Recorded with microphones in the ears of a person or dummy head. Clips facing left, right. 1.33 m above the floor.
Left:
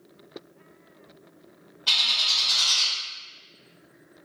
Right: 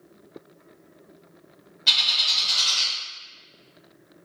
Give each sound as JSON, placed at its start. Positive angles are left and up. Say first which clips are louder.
{"t": 1.9, "sound": "a bird", "louder": "right 1 dB", "side_deg": -25, "distance_m": 1.3}